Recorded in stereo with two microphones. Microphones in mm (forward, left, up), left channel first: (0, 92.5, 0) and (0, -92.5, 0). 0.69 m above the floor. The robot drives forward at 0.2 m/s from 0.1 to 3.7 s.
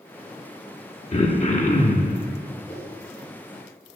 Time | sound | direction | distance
1.1 | throat clearing | 40° left (ahead or behind) | 0.8 m
2.7 | a whoosh | 15° left (ahead or behind) | 2.5 m